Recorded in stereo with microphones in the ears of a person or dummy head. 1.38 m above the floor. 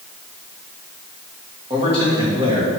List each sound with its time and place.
1.7 s a man speaking: 25° right (ahead or behind), 1.6 m